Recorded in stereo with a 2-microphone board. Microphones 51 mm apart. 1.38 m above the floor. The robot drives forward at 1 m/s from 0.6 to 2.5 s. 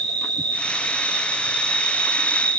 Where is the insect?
15° left (ahead or behind), 4.5 m; by 2.6 s 30° left (ahead or behind), 3 m.